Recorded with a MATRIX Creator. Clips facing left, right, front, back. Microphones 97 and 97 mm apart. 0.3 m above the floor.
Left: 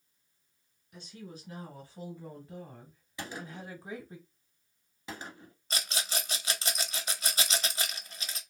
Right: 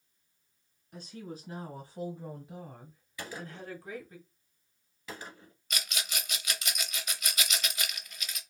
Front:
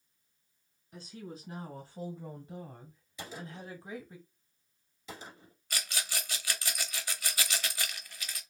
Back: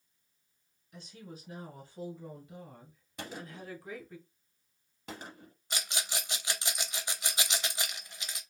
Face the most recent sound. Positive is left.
turn(degrees=125)